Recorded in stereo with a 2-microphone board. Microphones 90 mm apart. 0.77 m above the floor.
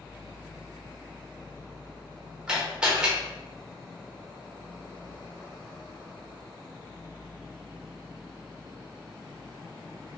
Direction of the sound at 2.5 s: 10° right (ahead or behind).